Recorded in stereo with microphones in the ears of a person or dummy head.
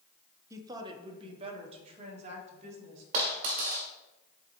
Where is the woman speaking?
20° right (ahead or behind), 0.8 m; by 3.0 s 45° right (ahead or behind), 2.5 m.